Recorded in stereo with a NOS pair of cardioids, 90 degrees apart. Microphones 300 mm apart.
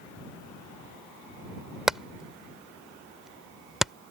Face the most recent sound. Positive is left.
turn(degrees=0)